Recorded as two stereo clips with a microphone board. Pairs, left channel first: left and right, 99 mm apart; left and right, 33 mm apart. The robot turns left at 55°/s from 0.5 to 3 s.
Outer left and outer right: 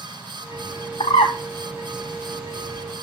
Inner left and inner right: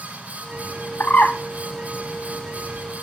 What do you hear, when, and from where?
1.0 s a bird: 70° left (ahead or behind), 0.8 m; by 1.4 s 80° left, 0.8 m